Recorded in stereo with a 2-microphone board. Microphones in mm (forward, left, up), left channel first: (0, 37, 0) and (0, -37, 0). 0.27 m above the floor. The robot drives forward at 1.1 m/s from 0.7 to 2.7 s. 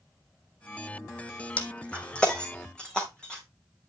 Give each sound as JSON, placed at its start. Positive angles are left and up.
{"t": 1.6, "sound": "breaking glass", "side_deg": 20, "distance_m": 1.9}